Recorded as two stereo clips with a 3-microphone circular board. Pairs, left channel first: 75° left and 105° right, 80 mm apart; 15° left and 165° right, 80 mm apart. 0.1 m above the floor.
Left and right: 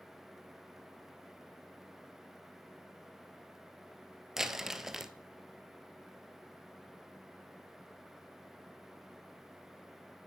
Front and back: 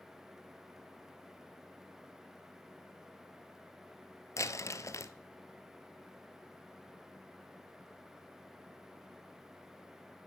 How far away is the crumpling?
About 1.1 m.